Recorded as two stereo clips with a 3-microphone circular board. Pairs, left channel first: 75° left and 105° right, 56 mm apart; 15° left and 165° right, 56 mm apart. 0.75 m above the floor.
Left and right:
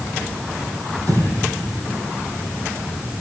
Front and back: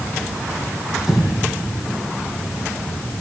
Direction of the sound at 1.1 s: 80° right.